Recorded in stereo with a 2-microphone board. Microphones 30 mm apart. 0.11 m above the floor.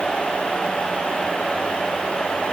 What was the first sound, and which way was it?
Only background noise.